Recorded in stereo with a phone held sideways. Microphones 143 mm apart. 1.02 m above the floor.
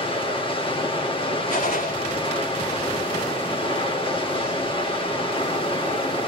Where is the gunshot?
80° left, 5 m.